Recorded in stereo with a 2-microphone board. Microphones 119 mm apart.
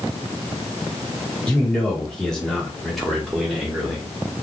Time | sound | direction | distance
1.5 | a man speaking | 10° left (ahead or behind) | 1.1 m